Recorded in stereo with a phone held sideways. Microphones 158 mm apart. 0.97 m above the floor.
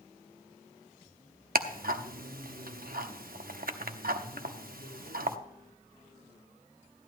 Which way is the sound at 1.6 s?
70° right (ahead or behind).